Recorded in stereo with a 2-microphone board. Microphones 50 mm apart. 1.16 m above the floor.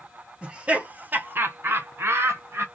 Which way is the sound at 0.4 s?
20° right (ahead or behind).